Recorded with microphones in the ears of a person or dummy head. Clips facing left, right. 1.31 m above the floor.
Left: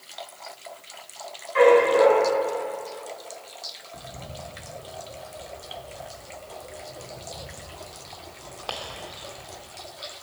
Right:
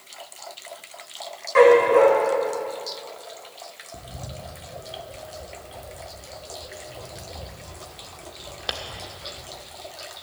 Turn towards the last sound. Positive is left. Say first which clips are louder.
# even
turn(degrees=-25)  # may be behind; listen again after turning